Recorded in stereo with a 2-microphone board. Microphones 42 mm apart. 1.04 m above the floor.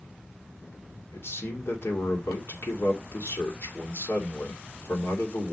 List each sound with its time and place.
1.1 s a man speaking: 70° left (ahead or behind), 2.5 m